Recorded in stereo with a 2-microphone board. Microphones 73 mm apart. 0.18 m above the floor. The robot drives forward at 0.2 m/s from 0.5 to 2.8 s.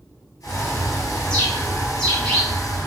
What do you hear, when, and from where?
0.4 s a bird: 15° left (ahead or behind), 1.3 m; by 2.9 s 10° left (ahead or behind), 1.5 m